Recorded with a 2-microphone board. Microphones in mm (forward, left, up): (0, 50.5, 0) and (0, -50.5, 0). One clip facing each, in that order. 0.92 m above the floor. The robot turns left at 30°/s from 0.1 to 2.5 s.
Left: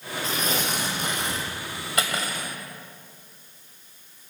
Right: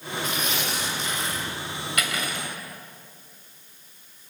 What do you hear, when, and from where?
0.2 s tearing paper: 145° left, 6 m; by 1.5 s 110° left, 6 m
2.0 s cutlery clinking: 30° left (ahead or behind), 2.5 m; by 2.5 s 45° left (ahead or behind), 2.5 m